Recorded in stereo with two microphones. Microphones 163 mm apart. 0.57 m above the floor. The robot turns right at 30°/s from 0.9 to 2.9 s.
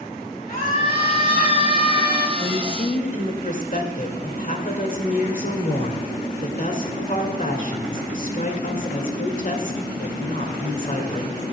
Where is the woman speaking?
40° left (ahead or behind), 1.7 m; by 11.4 s 55° left (ahead or behind), 1.7 m.